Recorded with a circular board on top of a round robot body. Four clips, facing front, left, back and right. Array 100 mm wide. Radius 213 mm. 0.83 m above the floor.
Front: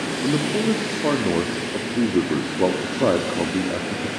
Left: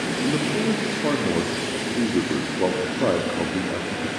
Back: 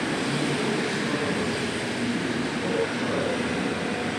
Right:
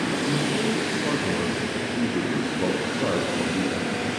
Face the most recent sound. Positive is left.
turn(degrees=20)